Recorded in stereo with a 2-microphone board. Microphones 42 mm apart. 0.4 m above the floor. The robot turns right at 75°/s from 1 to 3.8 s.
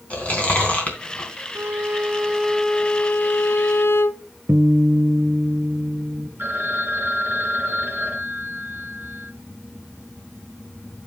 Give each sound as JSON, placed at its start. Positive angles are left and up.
{"t": 0.1, "sound": "chewing", "side_deg": 35, "distance_m": 3.5}
{"t": 1.6, "sound": "a violin", "azimuth_deg": -65, "distance_m": 0.7}
{"t": 4.5, "sound": "a guitar", "side_deg": -70, "distance_m": 1.1}
{"t": 6.4, "sound": "a phone ringing", "side_deg": -55, "distance_m": 3.5}